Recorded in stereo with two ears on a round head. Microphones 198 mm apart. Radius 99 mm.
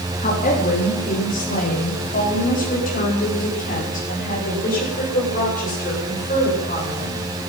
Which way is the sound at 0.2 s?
35° left (ahead or behind).